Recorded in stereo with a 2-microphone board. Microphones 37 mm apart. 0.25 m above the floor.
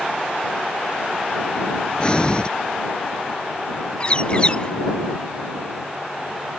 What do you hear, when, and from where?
2.0 s breathing: 25° left (ahead or behind)
4.0 s a bird: 30° left (ahead or behind)